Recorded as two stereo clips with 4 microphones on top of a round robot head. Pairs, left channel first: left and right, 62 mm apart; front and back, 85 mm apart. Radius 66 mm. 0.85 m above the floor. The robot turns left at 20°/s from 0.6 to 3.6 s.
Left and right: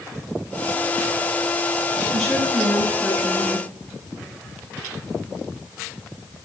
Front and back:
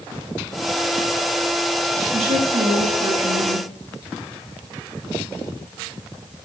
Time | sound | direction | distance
2.1 | a woman speaking | 175° right | 4 m